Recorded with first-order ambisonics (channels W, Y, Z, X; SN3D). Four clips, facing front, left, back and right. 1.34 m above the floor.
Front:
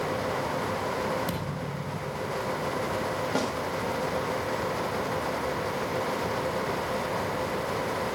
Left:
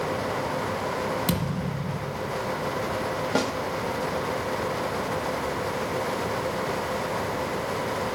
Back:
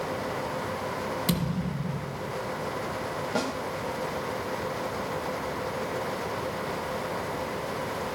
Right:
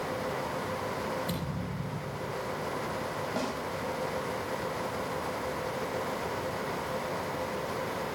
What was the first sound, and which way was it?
A thud, 115° left.